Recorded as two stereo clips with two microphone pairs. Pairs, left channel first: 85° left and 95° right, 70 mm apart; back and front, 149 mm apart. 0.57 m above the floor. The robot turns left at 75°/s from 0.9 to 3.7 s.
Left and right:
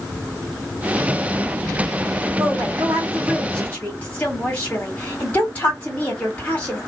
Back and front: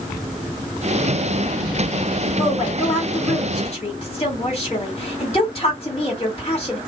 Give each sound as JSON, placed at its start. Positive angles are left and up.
{"t": 2.4, "sound": "a woman speaking", "azimuth_deg": -120, "distance_m": 2.0}